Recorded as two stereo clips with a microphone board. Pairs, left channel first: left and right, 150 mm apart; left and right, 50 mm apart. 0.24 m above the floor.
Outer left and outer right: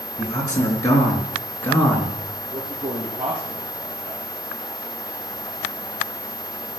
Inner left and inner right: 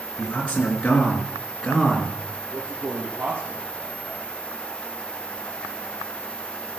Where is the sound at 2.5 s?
60° right (ahead or behind), 4.5 m.